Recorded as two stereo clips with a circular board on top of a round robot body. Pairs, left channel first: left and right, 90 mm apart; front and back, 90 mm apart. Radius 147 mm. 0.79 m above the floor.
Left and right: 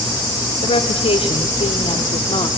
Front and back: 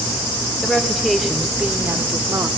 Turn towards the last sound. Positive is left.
turn(degrees=120)